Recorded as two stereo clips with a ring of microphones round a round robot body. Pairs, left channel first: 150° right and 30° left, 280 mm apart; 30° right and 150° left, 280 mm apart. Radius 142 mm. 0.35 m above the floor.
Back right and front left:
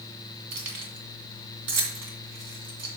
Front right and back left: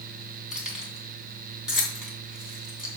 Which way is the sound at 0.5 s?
60° left.